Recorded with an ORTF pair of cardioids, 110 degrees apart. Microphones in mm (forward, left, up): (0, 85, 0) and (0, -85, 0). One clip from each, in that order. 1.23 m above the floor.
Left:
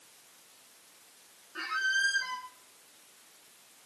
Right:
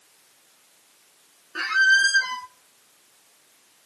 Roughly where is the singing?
No singing in this recording.